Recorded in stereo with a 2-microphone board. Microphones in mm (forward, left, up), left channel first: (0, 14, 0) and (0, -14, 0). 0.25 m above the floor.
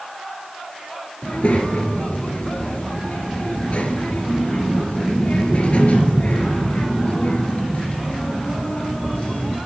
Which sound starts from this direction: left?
A child speaking, at 1.2 s.